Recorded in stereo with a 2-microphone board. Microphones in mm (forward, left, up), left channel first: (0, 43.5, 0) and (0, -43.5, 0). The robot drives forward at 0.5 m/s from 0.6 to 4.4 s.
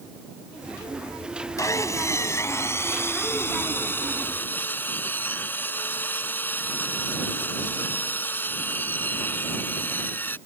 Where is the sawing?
40° left (ahead or behind); by 10.4 s 25° left (ahead or behind).